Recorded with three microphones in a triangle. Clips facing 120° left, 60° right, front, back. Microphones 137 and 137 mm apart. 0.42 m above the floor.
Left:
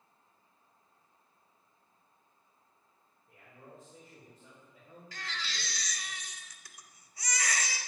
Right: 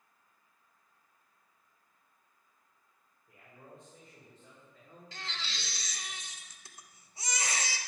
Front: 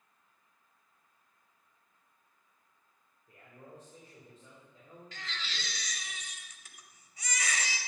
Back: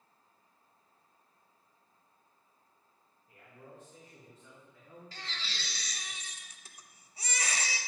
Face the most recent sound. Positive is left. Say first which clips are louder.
# left 2 dB, front 2 dB
turn(degrees=-125)